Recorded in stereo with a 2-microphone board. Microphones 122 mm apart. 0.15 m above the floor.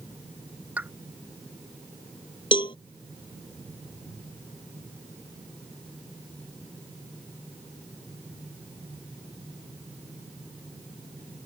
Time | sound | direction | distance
0.8 | a pop | 15° right (ahead or behind) | ?
2.5 | a cowbell | 45° left (ahead or behind) | ?